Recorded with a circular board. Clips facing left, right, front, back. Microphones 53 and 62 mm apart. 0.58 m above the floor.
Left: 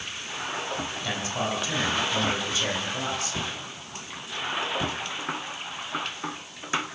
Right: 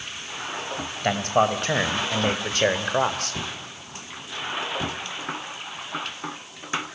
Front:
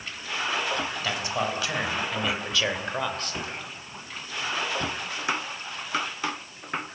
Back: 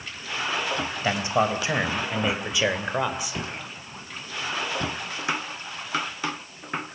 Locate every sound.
1.0 s a man speaking: 120° right, 3.5 m; by 3.4 s 100° right, 2.5 m